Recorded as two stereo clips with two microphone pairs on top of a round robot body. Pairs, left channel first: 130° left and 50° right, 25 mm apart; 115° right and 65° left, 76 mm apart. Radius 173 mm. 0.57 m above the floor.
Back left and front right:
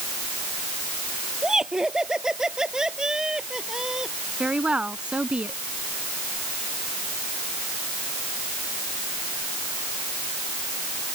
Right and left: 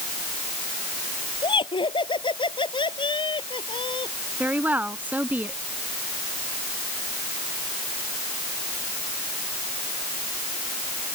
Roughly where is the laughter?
Behind right.